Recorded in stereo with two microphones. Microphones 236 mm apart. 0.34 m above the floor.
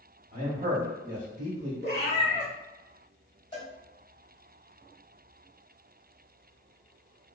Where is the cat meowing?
70° right (ahead or behind), 1.0 m.